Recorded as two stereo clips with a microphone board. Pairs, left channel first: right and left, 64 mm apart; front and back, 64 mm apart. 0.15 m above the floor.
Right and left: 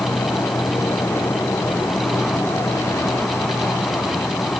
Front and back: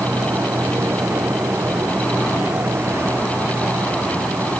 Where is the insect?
130° right.